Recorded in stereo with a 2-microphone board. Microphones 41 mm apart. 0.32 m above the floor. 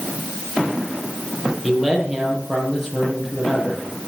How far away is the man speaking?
About 6.5 m.